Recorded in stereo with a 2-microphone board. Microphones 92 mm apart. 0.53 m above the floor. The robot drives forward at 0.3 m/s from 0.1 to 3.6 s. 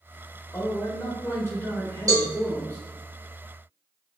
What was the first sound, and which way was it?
A man speaking, 25° left (ahead or behind).